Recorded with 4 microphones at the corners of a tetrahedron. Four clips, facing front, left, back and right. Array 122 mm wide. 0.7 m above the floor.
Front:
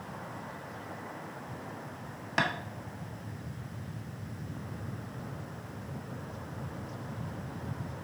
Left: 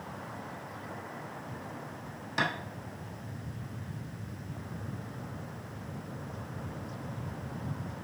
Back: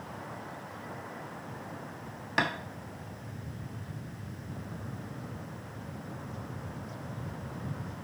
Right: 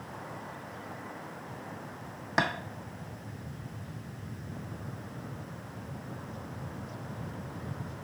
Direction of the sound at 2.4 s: 85° right.